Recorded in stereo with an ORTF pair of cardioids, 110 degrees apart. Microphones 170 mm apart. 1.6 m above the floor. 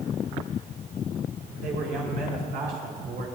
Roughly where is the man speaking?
Right.